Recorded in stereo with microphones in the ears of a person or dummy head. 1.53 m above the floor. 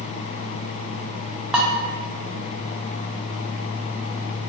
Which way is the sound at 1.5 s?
10° right (ahead or behind).